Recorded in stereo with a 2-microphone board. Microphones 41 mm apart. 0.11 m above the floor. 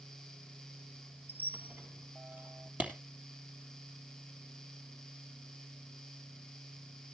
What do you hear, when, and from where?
1.3 s a squeak: 60° right (ahead or behind), 0.7 m
2.8 s a clap: 40° right (ahead or behind), 3 m